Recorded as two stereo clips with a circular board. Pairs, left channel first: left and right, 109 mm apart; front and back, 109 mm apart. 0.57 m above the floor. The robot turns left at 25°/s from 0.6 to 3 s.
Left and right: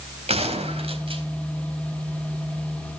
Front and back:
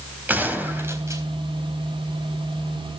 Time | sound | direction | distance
0.3 | a gunshot | 105° right | 4 m